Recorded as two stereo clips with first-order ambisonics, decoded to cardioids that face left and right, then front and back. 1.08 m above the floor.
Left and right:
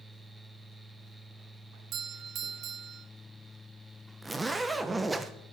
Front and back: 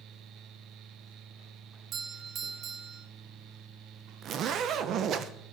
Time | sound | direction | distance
1.9 | a doorbell | 130° right | 1.1 m
4.2 | a zipper | 165° right | 0.8 m